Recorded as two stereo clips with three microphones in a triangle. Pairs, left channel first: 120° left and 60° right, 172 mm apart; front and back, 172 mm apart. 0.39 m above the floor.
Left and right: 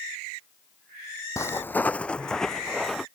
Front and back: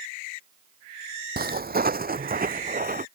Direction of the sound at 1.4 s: 170° right.